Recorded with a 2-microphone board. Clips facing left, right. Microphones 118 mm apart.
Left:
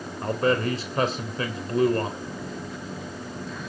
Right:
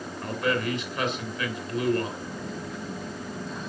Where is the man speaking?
35° left (ahead or behind), 3 m.